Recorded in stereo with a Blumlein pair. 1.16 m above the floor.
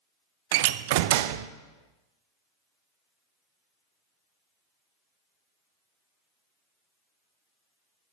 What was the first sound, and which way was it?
A door slam, 50° right.